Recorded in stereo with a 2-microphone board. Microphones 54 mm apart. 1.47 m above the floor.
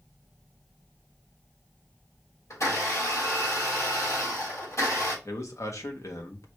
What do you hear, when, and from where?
2.5 s a blender: 70° left (ahead or behind), 3 m
5.2 s a man speaking: 70° left (ahead or behind), 1.1 m